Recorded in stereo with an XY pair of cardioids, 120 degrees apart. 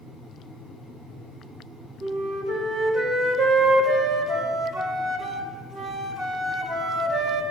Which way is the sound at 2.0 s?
55° right.